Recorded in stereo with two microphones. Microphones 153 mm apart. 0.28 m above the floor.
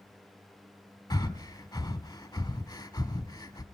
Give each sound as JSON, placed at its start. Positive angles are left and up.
{"t": 1.1, "sound": "breathing", "side_deg": 25, "distance_m": 0.8}